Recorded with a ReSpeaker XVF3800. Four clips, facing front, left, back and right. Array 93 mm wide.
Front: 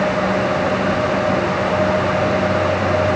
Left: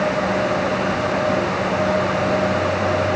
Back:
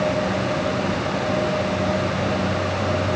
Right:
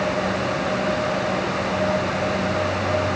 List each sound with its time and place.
Only background noise.